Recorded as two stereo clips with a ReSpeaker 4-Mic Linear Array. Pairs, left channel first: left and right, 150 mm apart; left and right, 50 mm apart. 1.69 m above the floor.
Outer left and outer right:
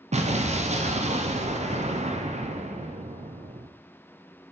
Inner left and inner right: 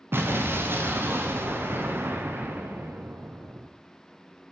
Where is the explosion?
45° right (ahead or behind), 0.6 m.